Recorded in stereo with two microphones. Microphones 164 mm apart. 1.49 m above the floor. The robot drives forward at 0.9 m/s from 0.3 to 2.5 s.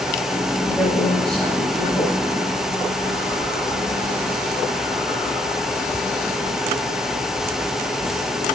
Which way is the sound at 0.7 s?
5° left (ahead or behind).